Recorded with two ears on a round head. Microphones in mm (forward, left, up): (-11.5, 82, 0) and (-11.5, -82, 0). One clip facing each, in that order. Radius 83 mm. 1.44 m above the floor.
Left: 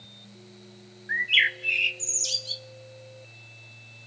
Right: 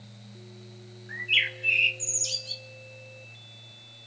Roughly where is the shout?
No shout in this recording.